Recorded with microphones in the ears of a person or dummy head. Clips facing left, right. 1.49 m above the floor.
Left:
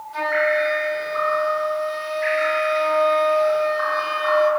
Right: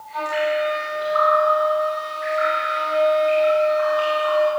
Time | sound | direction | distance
0.1 | a flute | 45° left (ahead or behind) | 1.0 m